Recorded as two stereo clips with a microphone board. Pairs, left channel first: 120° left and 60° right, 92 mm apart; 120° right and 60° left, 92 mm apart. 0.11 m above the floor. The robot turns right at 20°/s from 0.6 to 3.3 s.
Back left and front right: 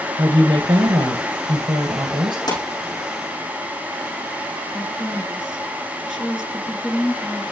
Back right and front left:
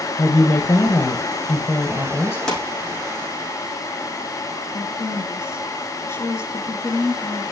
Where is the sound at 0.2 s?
95° right, 2.5 m; by 2.4 s 60° right, 2.5 m.